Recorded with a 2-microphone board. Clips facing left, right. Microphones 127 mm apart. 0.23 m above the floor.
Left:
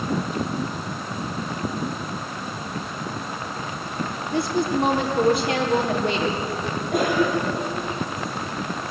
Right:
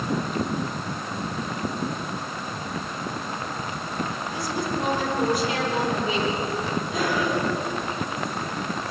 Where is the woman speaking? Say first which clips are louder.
Left 7 dB; 65° left (ahead or behind), 5 m.